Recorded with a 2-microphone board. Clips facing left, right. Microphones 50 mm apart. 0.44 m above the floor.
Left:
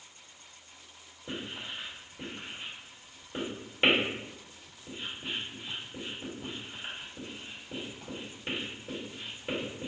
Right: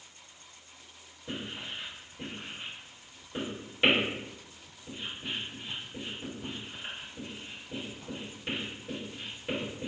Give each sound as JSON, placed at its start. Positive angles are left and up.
{"t": 1.3, "sound": "writing", "side_deg": 20, "distance_m": 1.5}